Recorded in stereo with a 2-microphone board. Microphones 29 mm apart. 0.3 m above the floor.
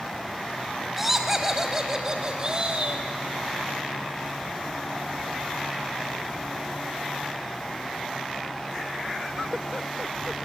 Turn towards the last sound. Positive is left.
turn(degrees=-40)  # may be behind; listen again after turning